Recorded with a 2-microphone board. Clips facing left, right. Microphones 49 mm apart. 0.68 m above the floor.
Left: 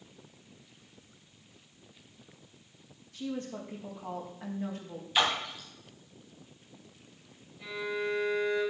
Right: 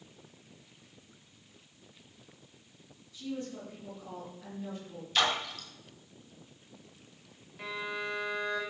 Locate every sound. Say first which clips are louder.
3.1 s a woman speaking: left 2 dB; 55° left (ahead or behind), 4 m
5.2 s a splash: left 1 dB; 15° left (ahead or behind), 2 m
7.6 s a violin: left 2 dB; 85° right, 3.5 m